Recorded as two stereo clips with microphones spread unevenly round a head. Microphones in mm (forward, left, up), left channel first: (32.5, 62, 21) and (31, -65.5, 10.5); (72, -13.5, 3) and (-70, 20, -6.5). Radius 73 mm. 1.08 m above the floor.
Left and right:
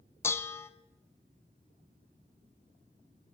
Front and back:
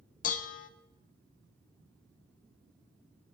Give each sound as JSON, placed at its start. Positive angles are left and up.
{"t": 0.2, "sound": "dishes clattering", "azimuth_deg": 20, "distance_m": 0.5}